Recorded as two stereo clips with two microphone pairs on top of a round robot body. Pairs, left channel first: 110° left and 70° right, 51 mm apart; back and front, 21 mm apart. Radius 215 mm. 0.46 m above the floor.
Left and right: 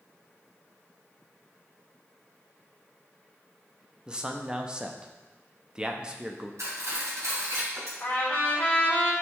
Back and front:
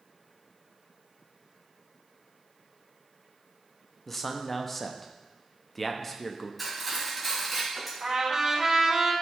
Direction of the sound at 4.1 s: 115° right.